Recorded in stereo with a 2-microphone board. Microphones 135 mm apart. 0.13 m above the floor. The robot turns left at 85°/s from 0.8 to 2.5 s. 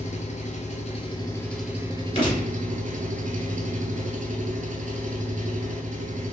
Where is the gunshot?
40° left (ahead or behind), 1.6 m; by 2.5 s 20° left (ahead or behind), 1.6 m.